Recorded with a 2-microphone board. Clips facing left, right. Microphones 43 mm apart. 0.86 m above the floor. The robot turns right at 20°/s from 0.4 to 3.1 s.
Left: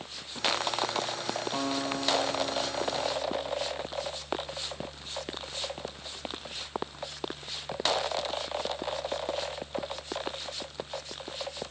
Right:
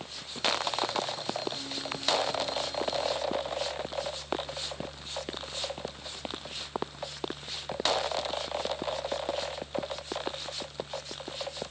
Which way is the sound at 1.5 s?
120° left.